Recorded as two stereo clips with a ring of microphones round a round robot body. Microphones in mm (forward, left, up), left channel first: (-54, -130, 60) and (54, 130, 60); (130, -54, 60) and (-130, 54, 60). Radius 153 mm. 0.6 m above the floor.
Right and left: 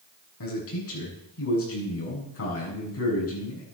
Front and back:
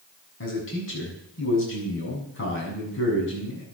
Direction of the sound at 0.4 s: 70° right.